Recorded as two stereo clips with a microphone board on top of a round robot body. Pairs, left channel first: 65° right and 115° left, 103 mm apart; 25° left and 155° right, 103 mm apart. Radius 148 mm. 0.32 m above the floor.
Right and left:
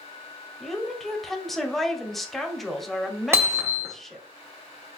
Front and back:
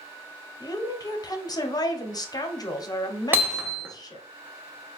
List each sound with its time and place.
0.6 s a woman speaking: 20° left, 1.0 m
3.3 s hammering: 150° left, 1.2 m